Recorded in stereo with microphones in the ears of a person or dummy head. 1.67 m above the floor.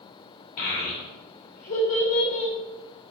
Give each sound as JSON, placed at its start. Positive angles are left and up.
{"t": 0.6, "sound": "a child speaking", "side_deg": 50, "distance_m": 0.7}